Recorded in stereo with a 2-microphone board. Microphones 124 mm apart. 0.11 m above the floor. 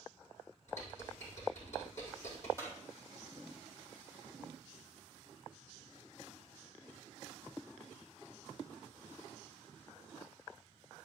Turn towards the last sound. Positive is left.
turn(degrees=20)  # may be behind; listen again after turning